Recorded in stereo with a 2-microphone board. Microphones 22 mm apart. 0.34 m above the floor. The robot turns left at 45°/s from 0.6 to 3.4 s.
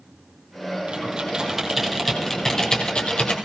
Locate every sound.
0.9 s typing on a keyboard: 50° right (ahead or behind), 3.5 m; by 3.3 s 60° left (ahead or behind), 3.5 m